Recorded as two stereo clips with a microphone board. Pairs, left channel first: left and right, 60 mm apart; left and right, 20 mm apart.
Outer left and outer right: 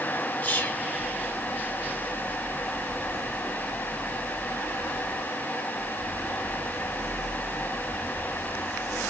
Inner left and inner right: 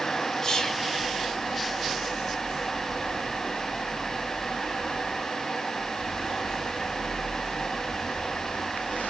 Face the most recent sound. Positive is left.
turn(degrees=25)  # may be behind; listen again after turning